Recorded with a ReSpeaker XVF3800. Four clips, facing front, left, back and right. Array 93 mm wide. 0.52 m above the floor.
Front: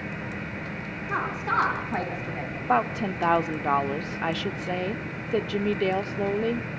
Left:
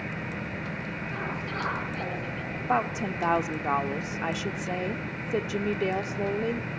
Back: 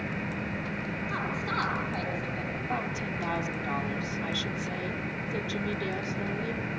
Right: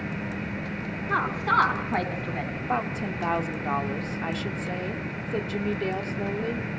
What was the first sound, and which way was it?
A woman speaking, 65° right.